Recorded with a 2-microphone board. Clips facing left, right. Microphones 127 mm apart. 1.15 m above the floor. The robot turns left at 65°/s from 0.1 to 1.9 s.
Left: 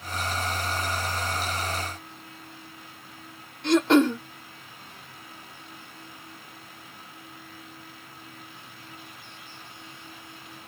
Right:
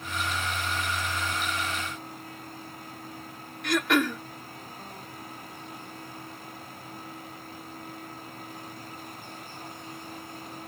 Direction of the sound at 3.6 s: 30° left (ahead or behind).